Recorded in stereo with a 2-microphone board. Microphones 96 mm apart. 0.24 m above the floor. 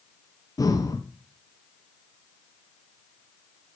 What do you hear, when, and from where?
0.6 s breathing: 40° left (ahead or behind), 0.9 m